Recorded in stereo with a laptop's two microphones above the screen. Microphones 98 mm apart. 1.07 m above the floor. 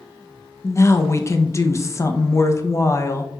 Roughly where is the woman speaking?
Left.